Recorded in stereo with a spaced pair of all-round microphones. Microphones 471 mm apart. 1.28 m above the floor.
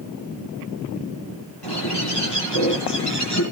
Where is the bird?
60° left (ahead or behind), 9.5 m.